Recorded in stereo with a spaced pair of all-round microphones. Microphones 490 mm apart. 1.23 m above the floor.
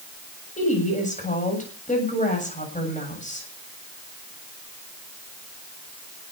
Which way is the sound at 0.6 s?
15° left (ahead or behind).